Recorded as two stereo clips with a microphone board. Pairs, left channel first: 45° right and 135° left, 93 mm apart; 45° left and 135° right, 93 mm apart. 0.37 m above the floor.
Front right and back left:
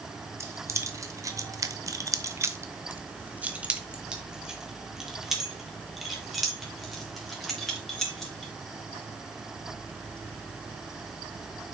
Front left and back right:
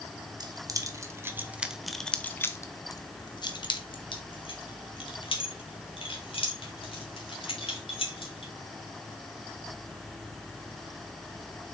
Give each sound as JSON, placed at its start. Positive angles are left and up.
{"t": 0.4, "sound": "keys jangling", "azimuth_deg": -170, "distance_m": 1.2}